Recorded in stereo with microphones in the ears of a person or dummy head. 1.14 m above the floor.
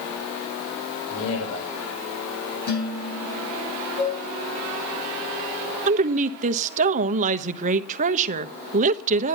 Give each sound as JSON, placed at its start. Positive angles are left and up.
{"t": 1.1, "sound": "a man speaking", "side_deg": 85, "distance_m": 4.5}
{"t": 2.7, "sound": "dishes clattering", "side_deg": 55, "distance_m": 9.5}
{"t": 4.0, "sound": "dishes clattering", "side_deg": 60, "distance_m": 10.0}
{"t": 5.9, "sound": "a woman speaking", "side_deg": -40, "distance_m": 1.0}